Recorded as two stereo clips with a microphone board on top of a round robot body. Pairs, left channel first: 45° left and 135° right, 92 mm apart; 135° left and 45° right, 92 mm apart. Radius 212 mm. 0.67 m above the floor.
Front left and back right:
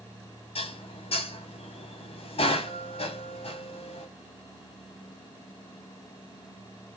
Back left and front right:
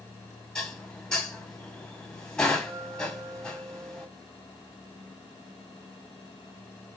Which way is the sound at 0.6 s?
50° left.